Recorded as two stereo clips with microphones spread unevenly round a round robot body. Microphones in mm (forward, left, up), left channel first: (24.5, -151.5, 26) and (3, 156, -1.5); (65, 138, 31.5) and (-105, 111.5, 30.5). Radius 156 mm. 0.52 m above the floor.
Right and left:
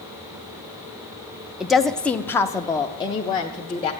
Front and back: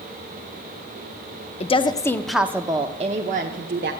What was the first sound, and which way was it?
A woman speaking, 15° left.